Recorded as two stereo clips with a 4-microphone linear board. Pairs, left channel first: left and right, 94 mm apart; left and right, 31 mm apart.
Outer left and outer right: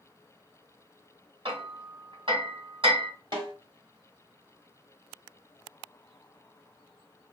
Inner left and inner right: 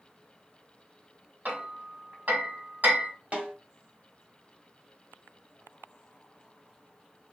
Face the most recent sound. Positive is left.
turn(degrees=-50)  # may be behind; listen again after turning